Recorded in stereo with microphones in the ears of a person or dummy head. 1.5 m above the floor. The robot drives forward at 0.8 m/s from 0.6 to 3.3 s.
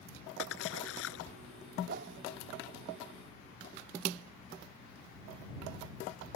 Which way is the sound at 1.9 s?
60° right (ahead or behind).